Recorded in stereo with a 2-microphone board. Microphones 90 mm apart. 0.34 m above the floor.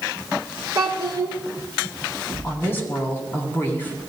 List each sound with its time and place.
0.8 s a child speaking: 40° right (ahead or behind), 2.5 m
2.4 s a woman speaking: 25° left (ahead or behind), 3 m